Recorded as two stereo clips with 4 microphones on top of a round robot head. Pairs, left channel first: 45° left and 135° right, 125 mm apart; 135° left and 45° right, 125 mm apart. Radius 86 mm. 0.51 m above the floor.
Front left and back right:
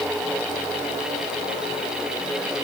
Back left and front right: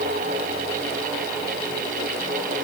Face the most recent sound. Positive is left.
No sound to turn to.